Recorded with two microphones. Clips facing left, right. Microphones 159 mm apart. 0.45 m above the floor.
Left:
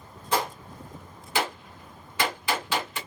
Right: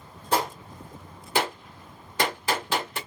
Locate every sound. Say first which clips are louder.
0.3 s a gunshot: right 1 dB; 40° right (ahead or behind), 1.8 m